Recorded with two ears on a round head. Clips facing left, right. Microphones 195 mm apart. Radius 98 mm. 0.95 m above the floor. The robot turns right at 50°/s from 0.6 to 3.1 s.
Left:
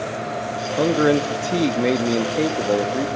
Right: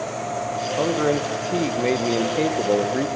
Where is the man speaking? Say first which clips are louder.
Left 4 dB; 20° left (ahead or behind), 0.5 m; by 3.1 s 10° right (ahead or behind), 0.5 m.